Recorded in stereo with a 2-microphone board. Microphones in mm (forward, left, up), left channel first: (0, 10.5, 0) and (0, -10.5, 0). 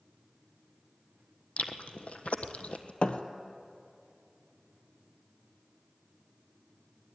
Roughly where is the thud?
Left.